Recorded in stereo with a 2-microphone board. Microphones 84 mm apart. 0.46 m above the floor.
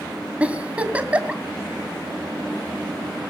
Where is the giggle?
15° right (ahead or behind), 2.5 m.